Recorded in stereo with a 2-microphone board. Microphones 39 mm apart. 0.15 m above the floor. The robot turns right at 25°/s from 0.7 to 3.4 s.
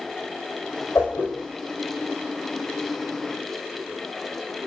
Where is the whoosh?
70° left (ahead or behind), 5 m; by 1.3 s 75° left (ahead or behind), 5 m.